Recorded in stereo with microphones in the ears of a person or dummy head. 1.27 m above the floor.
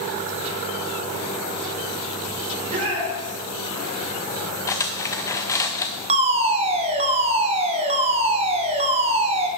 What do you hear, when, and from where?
2.5 s a shout: 35° right (ahead or behind), 3.5 m
4.7 s cutlery clinking: 15° left (ahead or behind), 0.5 m
6.1 s a fire alarm: 25° right (ahead or behind), 1.0 m